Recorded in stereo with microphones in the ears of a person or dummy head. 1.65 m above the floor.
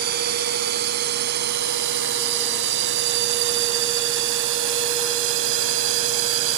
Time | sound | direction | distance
0.0 | a drone | 55° right (ahead or behind) | ?